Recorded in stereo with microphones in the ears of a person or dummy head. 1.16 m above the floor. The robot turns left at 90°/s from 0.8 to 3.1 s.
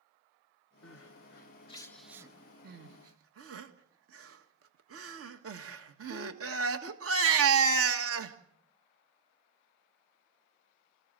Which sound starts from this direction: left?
Crying, at 0.8 s.